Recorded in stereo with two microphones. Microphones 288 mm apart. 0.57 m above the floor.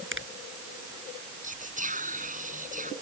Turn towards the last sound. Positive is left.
turn(degrees=-25)  # may be behind; listen again after turning